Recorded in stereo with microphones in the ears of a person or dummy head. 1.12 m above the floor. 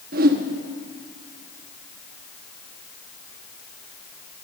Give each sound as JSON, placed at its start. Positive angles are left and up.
{"t": 0.1, "sound": "a whoosh", "side_deg": -40, "distance_m": 0.8}